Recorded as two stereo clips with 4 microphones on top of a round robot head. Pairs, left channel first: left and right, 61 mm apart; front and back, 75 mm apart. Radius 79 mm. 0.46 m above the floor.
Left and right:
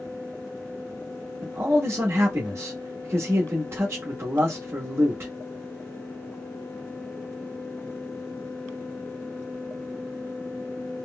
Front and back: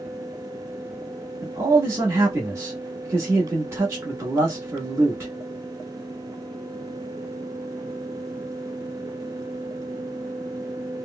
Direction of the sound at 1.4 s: 130° right.